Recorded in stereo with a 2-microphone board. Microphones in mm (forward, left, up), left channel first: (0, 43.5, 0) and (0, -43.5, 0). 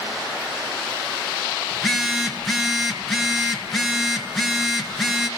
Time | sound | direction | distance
1.7 | a phone buzzing | centre (ahead or behind) | 1.8 m